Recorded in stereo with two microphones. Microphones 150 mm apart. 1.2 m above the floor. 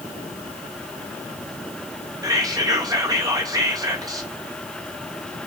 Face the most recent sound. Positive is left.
turn(degrees=-25)  # may be behind; listen again after turning